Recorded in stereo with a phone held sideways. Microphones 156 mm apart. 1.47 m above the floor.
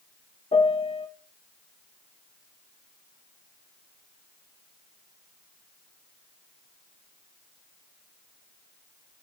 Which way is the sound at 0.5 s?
40° left (ahead or behind).